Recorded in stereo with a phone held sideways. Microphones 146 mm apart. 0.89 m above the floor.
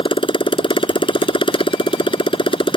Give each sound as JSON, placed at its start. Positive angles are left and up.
{"t": 0.0, "sound": "a motorcycle", "side_deg": 40}